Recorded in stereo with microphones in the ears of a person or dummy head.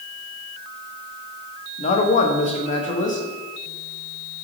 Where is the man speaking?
35° left (ahead or behind), 1.0 m.